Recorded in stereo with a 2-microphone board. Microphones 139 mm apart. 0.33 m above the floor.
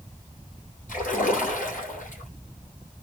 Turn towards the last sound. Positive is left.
turn(degrees=70)  # may be behind; listen again after turning